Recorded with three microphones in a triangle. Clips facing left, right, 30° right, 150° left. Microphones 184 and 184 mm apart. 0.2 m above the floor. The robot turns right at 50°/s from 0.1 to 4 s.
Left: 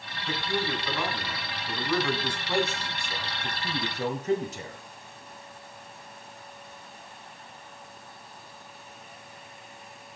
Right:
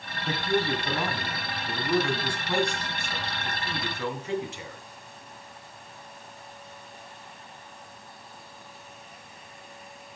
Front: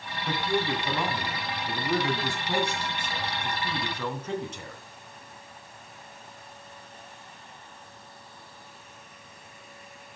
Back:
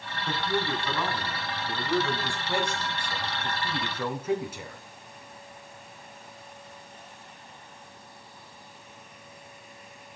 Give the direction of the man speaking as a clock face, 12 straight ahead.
4 o'clock.